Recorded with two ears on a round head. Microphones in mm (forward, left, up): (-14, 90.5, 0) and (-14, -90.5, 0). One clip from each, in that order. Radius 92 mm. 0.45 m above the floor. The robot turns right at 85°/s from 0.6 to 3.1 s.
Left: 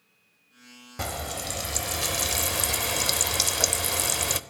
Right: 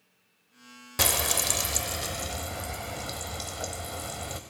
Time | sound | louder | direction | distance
1.0 | frying | right 6 dB | 70° right | 0.6 m